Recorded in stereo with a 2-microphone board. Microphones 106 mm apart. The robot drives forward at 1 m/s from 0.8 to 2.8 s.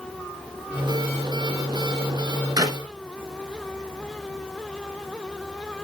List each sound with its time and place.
2.6 s a clap: 35° right (ahead or behind), 1.1 m